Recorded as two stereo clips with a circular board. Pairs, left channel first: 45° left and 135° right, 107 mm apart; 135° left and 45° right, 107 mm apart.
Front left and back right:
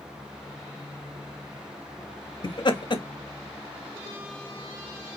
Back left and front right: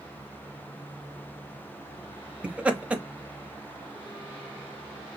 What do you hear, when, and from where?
2.4 s laughter: 30° left, 0.7 m